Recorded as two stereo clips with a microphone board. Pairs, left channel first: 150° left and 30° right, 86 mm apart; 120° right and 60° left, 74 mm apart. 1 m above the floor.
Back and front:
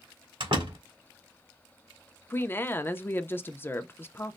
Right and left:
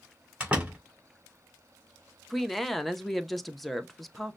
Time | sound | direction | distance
0.4 | a door slam | 15° right | 2.5 m
2.3 | a woman speaking | 155° left | 0.6 m